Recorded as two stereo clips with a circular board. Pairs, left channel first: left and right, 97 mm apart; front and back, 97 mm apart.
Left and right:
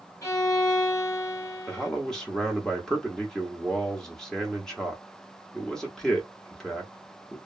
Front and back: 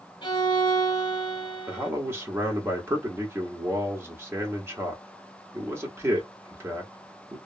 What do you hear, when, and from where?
0.2 s a violin: 35° left, 1.0 m
1.7 s a man speaking: 170° left, 0.9 m